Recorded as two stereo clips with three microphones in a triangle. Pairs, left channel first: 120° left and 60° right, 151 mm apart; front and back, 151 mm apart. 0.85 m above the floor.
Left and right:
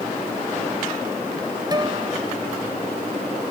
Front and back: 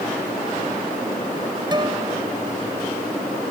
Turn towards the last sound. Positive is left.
turn(degrees=-120)